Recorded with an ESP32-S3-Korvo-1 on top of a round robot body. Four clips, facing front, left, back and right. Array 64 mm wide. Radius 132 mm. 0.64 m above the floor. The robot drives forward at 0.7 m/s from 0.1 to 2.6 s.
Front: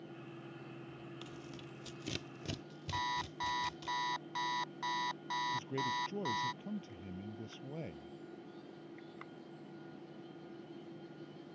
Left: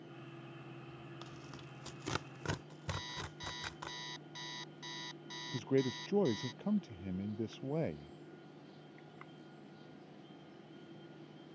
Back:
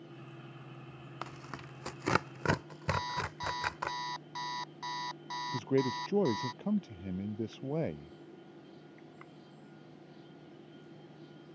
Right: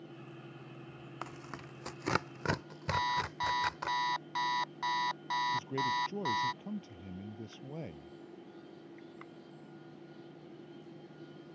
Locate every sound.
1.2 s tearing paper: 140° right; by 3.9 s 160° right
2.9 s an alarm clock: 80° right
5.5 s a man speaking: 150° left